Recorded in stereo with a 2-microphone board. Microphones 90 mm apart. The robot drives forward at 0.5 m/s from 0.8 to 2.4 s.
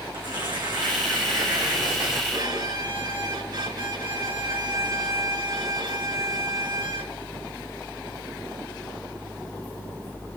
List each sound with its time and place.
0.1 s tearing paper: 60° right (ahead or behind), 4.5 m; by 2.2 s 55° right (ahead or behind), 5 m
2.3 s a violin: 55° right (ahead or behind), 4 m